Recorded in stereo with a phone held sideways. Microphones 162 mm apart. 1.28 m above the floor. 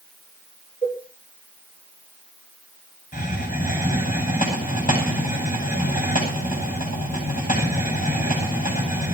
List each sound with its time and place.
0.8 s a cowbell: 40° left (ahead or behind), 4.5 m
3.1 s a hiss: 55° left (ahead or behind), 10 m